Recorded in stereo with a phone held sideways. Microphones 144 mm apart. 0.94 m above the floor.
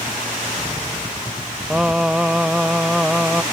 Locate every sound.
1.7 s singing: 5° right (ahead or behind)